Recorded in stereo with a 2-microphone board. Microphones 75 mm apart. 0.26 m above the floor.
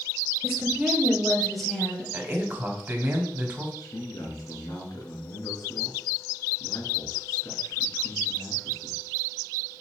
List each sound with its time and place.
0.4 s a woman speaking: 20° right (ahead or behind), 1.2 m; by 2.0 s 5° left (ahead or behind), 1.6 m
2.1 s a man speaking: 25° right (ahead or behind), 1.7 m
3.8 s a man speaking: 60° left (ahead or behind), 2.5 m